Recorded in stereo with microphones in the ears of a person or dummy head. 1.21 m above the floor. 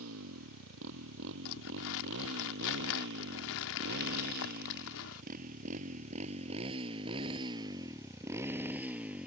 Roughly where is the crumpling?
Left.